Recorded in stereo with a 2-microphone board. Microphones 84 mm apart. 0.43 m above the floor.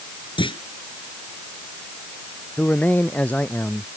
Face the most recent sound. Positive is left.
turn(degrees=20)  # may be behind; listen again after turning